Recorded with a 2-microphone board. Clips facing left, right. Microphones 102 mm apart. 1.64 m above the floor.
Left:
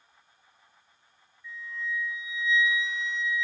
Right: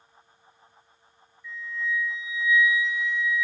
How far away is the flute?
About 2.5 m.